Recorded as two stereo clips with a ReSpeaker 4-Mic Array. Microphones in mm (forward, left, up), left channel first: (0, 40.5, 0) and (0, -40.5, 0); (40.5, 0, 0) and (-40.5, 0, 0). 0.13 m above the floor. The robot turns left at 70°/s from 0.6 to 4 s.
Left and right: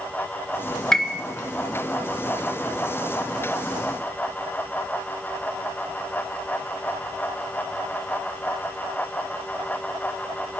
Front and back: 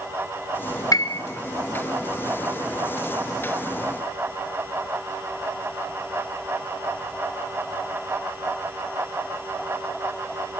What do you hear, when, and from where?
0.9 s a piano: 10° left, 0.9 m; by 1.2 s 10° right, 0.9 m